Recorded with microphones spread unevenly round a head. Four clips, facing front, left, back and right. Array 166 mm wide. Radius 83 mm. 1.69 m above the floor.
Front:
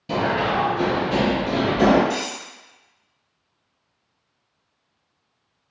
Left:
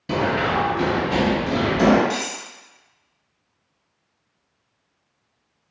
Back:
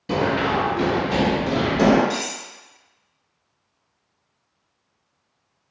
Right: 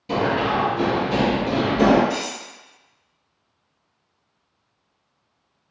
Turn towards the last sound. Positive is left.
turn(degrees=110)